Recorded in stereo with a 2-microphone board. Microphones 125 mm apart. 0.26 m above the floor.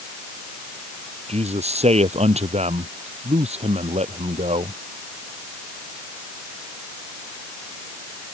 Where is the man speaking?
60° right (ahead or behind).